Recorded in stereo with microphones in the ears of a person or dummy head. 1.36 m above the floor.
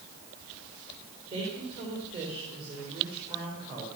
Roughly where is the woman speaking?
Right.